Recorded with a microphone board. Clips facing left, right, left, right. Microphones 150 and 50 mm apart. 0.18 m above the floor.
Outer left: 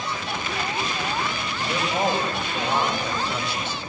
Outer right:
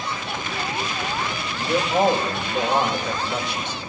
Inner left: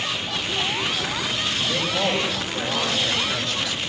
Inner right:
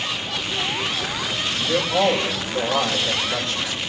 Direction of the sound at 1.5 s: 20° right (ahead or behind).